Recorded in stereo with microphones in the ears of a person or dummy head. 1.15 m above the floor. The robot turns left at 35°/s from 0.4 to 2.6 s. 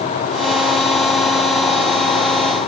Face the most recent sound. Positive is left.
No sound to turn to.